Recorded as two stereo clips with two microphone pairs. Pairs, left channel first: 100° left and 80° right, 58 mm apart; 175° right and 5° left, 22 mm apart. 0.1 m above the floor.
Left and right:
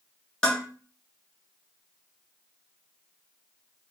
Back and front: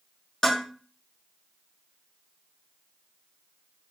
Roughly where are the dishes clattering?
Behind.